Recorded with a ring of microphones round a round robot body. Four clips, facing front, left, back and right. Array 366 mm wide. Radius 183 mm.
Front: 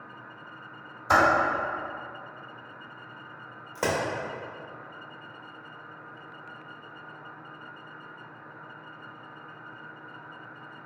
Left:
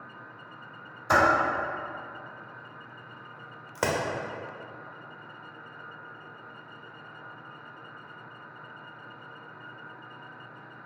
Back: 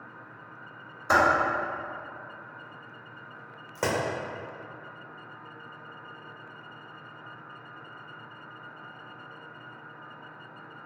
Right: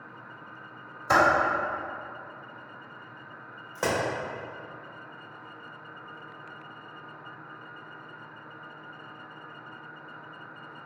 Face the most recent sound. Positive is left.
turn(degrees=90)